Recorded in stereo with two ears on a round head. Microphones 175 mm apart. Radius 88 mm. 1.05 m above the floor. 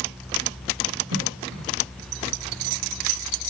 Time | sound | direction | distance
1.1 | a cough | 80° right | 2 m